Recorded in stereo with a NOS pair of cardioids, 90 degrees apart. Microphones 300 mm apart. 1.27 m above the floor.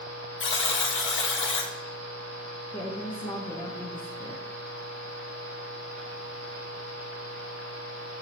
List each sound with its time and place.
0.4 s a buzzer: 40° left, 0.6 m
2.7 s a woman speaking: 15° left, 0.7 m